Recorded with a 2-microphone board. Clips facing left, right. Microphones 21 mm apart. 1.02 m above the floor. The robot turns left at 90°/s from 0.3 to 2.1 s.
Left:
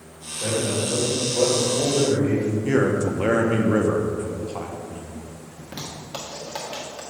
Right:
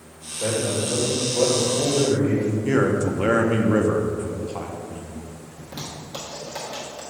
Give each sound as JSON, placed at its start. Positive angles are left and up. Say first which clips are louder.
{"t": 0.4, "sound": "a man speaking", "louder": "even", "azimuth_deg": -125, "distance_m": 2.5}
{"t": 2.6, "sound": "a man speaking", "louder": "even", "side_deg": -30, "distance_m": 0.6}
{"t": 5.6, "sound": "a zipper", "louder": "even", "side_deg": 70, "distance_m": 1.7}